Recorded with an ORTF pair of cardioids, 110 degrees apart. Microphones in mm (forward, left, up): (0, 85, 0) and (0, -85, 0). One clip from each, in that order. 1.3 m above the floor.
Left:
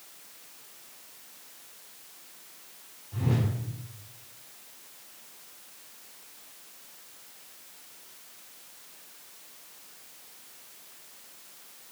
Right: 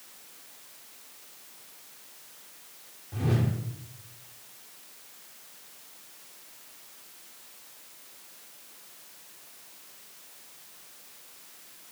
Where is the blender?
No blender in this recording.